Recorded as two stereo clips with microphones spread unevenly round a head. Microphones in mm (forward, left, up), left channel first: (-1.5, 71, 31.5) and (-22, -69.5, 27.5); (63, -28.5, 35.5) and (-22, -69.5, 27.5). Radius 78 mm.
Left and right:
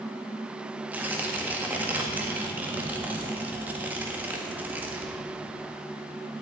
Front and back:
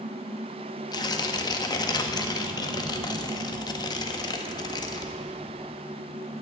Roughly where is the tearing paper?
Ahead.